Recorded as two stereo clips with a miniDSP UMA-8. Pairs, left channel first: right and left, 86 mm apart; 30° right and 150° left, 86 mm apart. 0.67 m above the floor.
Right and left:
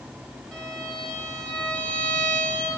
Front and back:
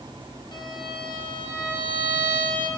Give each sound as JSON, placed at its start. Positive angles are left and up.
{"t": 0.5, "sound": "a violin", "azimuth_deg": -5, "distance_m": 2.5}